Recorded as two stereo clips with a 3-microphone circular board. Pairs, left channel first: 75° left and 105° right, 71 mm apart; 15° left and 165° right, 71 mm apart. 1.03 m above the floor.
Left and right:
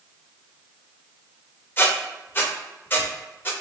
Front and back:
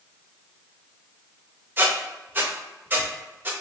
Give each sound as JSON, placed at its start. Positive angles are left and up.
{"t": 1.8, "sound": "a squeak", "azimuth_deg": 130, "distance_m": 0.7}